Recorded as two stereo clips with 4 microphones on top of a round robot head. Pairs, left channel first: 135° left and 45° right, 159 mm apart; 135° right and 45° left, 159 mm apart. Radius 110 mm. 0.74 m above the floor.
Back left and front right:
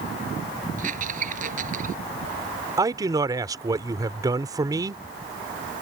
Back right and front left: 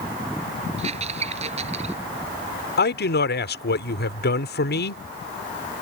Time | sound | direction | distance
0.8 | a squeak | 5° right | ?
2.8 | a man speaking | 115° right | ?